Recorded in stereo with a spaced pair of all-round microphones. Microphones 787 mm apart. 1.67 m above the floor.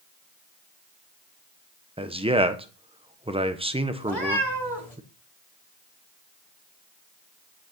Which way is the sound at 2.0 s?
10° right (ahead or behind).